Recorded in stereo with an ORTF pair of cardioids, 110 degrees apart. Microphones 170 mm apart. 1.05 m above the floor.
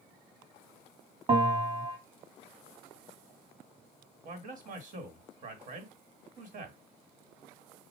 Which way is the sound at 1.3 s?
35° right.